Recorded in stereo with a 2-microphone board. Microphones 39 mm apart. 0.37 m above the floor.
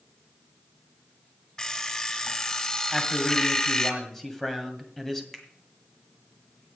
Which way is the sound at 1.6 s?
20° left (ahead or behind).